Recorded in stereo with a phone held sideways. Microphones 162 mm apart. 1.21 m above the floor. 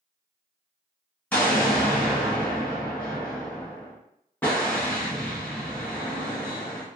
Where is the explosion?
10° left (ahead or behind), 1.1 m.